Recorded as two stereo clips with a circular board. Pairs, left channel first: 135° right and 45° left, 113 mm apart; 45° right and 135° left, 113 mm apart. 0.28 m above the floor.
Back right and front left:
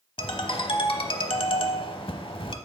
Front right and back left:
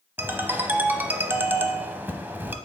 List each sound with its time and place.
0.2 s a ringtone: 155° right, 0.7 m